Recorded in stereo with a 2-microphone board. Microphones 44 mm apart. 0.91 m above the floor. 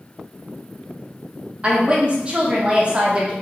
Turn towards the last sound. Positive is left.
turn(degrees=-25)  # may be behind; listen again after turning